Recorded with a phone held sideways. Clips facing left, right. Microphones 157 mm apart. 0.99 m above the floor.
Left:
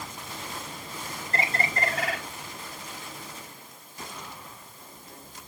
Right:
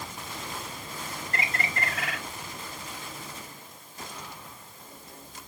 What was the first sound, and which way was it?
A bird, 35° left (ahead or behind).